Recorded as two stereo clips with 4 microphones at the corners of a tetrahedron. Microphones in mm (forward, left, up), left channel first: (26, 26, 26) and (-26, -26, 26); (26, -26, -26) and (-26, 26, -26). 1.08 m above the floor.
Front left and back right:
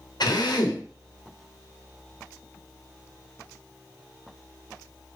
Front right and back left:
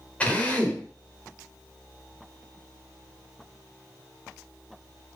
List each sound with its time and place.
0.2 s a drill: 25° left, 3 m